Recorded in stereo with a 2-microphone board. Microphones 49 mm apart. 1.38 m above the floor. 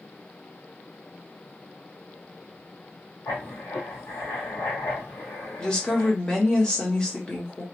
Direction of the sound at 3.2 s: 70° left (ahead or behind).